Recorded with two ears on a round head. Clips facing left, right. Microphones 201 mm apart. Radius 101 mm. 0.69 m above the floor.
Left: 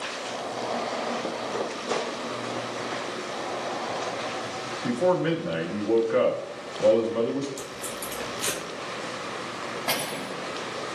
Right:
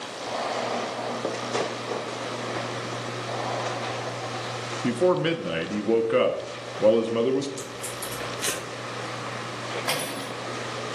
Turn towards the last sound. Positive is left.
turn(degrees=-20)  # may be behind; listen again after turning